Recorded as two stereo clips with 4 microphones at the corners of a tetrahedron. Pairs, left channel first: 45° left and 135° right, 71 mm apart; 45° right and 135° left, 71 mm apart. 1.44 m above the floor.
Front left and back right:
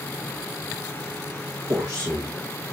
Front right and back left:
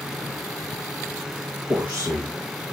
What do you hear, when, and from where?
1.7 s a man speaking: 160° right, 2 m